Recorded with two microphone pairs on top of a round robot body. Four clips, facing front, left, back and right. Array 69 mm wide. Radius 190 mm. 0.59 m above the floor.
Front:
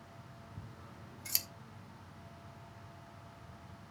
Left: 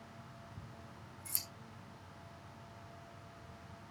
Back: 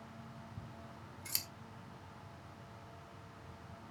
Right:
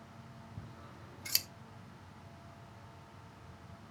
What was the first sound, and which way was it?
Scissors, 85° right.